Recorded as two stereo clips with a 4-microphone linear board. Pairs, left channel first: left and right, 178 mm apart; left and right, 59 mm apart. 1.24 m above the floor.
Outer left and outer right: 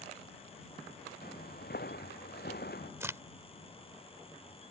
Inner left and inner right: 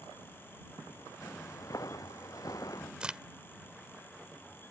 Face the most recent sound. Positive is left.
turn(degrees=-15)  # may be behind; listen again after turning